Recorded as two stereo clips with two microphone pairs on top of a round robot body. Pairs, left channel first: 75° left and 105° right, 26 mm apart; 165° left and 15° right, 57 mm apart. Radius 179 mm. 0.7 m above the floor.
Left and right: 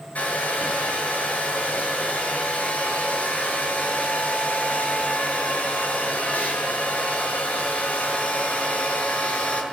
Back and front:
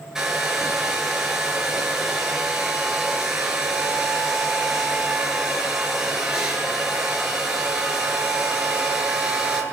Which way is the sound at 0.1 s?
60° left.